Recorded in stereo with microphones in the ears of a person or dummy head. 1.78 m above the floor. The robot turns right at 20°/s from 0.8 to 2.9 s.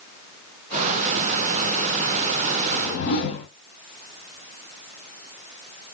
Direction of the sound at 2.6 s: 45° left (ahead or behind).